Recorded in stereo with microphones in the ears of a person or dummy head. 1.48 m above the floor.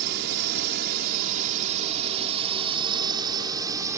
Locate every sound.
0.0 s a drone: 60° right (ahead or behind); by 4.0 s 15° right (ahead or behind)